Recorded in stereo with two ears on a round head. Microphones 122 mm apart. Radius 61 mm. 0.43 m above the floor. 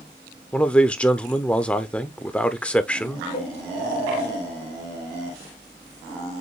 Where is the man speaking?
10° left (ahead or behind), 0.8 m.